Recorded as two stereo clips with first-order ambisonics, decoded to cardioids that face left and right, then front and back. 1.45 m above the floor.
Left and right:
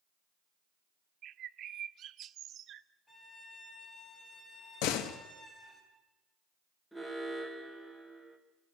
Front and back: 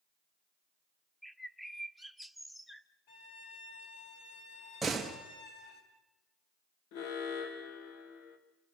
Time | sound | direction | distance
1.2 | a bird | 85° right | 0.6 m
3.1 | a violin | 10° left | 3 m
4.8 | a door slam | 95° left | 1.6 m
6.9 | an alarm | 5° left | 1.8 m